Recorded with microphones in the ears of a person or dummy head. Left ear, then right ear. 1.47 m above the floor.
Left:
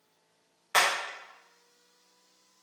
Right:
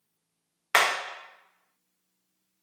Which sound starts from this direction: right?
Hammering, at 0.7 s.